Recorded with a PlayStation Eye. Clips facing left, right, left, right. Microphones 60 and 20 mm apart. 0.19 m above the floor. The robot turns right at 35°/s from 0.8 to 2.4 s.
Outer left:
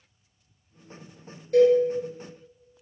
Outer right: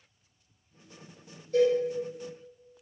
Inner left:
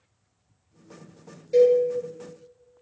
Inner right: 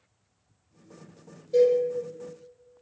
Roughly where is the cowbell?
Left.